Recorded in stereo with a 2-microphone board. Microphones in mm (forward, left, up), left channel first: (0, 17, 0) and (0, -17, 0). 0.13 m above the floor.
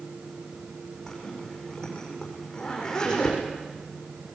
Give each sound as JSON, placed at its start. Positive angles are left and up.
{"t": 1.1, "sound": "a zipper", "side_deg": 20, "distance_m": 8.0}